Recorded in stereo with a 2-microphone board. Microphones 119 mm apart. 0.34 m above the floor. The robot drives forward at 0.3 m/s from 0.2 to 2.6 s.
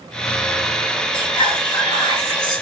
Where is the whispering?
40° left (ahead or behind), 1.7 m; by 2.6 s 35° left (ahead or behind), 1.9 m.